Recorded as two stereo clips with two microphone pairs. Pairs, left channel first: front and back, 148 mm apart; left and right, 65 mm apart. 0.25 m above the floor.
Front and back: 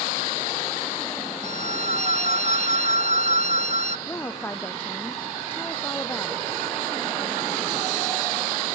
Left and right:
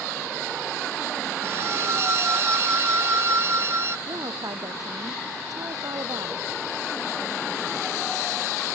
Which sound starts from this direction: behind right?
A violin, at 1.4 s.